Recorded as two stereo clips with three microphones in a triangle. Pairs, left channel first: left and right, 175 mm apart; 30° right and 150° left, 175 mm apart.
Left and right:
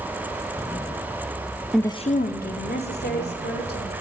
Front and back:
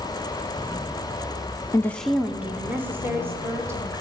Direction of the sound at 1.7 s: 10° right.